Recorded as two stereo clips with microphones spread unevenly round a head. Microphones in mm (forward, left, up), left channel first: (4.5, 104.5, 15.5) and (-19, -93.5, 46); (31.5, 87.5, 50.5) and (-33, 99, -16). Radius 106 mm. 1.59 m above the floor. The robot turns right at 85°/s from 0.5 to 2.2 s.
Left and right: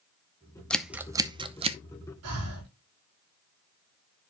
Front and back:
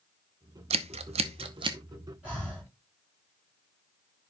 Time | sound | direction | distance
0.7 | scissors | straight behind | 0.7 m
2.2 | breathing | 105° right | 5 m